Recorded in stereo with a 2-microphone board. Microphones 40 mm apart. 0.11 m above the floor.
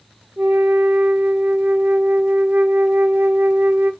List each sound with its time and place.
0.4 s a flute: 55° right (ahead or behind), 1.1 m